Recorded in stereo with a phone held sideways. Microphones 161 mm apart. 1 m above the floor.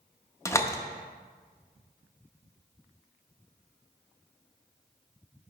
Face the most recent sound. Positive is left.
turn(degrees=20)  # may be behind; listen again after turning